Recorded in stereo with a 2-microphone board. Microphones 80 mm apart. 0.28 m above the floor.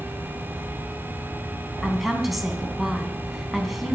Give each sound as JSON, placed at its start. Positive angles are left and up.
{"t": 1.8, "sound": "a woman speaking", "side_deg": 0, "distance_m": 2.5}